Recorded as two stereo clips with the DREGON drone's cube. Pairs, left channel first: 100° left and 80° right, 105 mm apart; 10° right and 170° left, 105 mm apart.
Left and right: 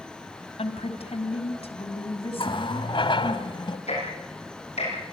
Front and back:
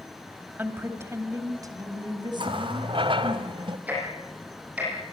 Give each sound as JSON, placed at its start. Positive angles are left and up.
{"t": 0.6, "sound": "a woman speaking", "azimuth_deg": 100, "distance_m": 3.0}
{"t": 2.4, "sound": "a running tap", "azimuth_deg": 135, "distance_m": 1.9}
{"t": 3.9, "sound": "ticking", "azimuth_deg": 95, "distance_m": 9.0}